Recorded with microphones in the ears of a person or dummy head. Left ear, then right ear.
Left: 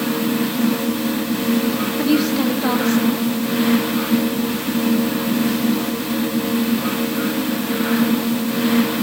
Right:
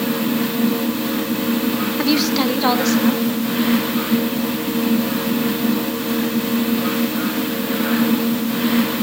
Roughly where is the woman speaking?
Right.